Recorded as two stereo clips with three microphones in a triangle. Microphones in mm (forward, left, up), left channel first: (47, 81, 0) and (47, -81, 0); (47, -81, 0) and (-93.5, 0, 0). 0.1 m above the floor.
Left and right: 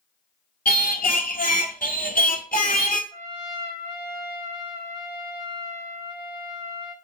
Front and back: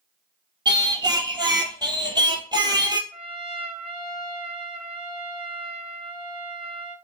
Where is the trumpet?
155° left, 2.0 m.